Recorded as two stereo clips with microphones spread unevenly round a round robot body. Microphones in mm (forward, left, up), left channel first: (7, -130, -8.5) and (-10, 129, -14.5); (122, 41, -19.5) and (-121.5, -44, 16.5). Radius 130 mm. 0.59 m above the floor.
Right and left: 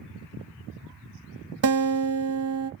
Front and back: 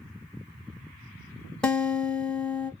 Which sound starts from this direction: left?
A guitar, at 1.6 s.